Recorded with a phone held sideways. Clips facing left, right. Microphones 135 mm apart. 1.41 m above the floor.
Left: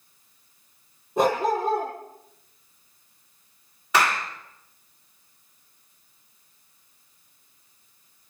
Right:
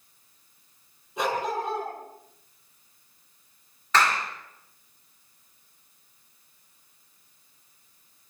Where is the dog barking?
45° left (ahead or behind), 7.5 m.